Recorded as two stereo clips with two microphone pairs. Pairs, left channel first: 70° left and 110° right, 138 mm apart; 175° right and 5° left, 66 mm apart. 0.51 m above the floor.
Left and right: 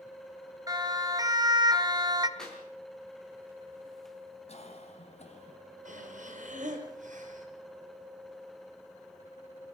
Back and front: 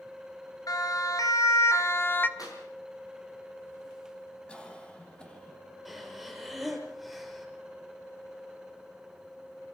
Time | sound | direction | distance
0.7 | a siren | 170° right | 3 m
2.4 | a clap | 160° left | 7.5 m
4.5 | a cough | 110° left | 4 m
5.8 | breathing | 85° right | 4.5 m